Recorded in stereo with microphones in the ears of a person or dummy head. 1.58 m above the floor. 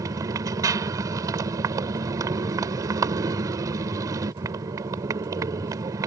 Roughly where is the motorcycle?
Centre.